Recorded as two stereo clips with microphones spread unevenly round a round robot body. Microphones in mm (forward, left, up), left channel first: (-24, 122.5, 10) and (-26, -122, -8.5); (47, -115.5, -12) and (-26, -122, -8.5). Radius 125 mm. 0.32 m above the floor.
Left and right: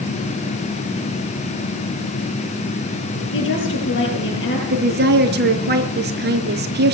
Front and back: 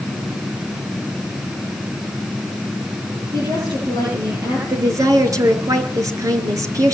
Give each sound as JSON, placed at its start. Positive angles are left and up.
{"t": 3.3, "sound": "a woman speaking", "azimuth_deg": 130, "distance_m": 8.5}
{"t": 4.7, "sound": "a woman speaking", "azimuth_deg": -140, "distance_m": 4.5}